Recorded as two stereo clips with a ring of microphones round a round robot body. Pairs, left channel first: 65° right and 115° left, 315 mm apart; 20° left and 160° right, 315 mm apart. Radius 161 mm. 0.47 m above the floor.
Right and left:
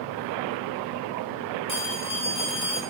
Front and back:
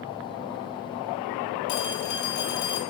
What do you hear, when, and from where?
1.7 s a phone ringing: straight ahead, 1.9 m